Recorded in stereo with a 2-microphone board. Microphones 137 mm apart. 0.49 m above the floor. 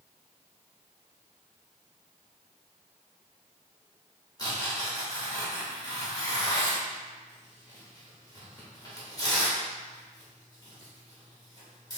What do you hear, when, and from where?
4.4 s tearing paper: 25° left (ahead or behind), 1.5 m